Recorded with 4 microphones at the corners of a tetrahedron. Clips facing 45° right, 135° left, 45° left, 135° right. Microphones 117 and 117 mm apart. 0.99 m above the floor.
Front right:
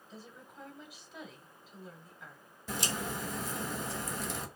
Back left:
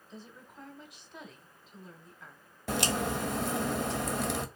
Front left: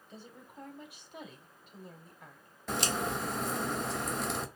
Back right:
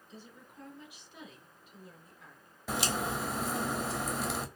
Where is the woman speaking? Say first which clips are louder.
Back left 2 dB, front left 2 dB; 45° left, 0.9 m.